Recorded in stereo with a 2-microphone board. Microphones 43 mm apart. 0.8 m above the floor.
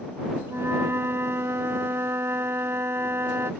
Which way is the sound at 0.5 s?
80° right.